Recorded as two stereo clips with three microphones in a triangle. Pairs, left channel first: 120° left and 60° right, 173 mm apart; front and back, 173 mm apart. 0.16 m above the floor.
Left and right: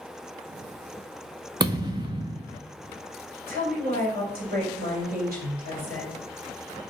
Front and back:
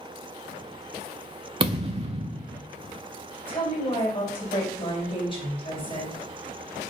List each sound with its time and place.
1.6 s a thud: 125° right, 0.7 m
3.5 s a woman speaking: 50° right, 2.5 m